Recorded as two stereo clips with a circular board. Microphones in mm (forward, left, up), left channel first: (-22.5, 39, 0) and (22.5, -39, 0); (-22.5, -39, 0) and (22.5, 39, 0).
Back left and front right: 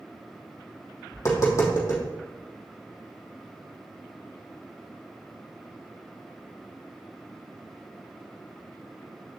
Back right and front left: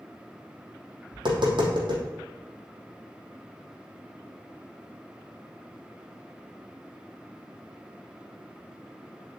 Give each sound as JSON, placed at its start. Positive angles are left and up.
{"t": 1.1, "sound": "tapping", "azimuth_deg": 70, "distance_m": 3.0}